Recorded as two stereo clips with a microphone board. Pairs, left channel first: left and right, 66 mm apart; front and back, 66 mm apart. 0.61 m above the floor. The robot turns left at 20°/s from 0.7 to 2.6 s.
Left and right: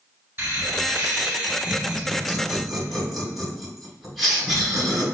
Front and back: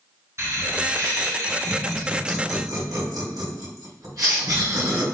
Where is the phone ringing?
I don't hear a phone ringing.